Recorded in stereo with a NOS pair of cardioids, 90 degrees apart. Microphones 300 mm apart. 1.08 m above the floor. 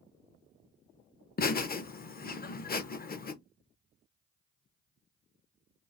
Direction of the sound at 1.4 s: 30° left.